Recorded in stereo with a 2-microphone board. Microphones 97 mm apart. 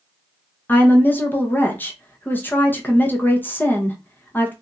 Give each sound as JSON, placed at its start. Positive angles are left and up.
{"t": 0.7, "sound": "a woman speaking", "side_deg": 20, "distance_m": 0.8}